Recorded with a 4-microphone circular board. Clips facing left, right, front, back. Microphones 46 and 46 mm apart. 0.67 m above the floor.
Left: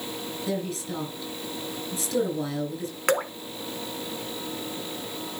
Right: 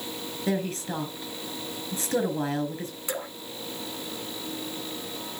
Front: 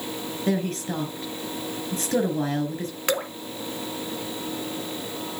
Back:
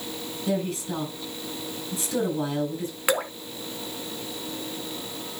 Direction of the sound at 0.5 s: 40° right.